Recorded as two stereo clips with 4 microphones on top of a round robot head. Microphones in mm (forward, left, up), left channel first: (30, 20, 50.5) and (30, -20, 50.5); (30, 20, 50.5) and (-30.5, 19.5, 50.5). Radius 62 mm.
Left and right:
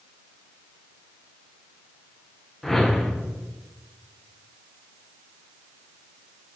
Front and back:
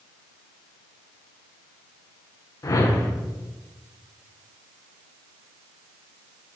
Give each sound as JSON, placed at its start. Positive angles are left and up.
{"t": 2.6, "sound": "a whoosh", "azimuth_deg": 10, "distance_m": 1.0}